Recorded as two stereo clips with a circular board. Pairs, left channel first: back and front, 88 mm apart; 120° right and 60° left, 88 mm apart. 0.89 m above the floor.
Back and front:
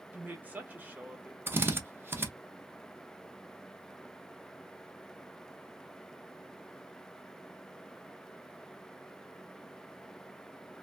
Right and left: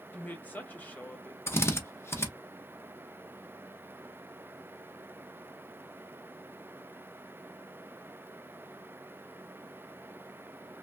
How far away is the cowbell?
I don't hear a cowbell.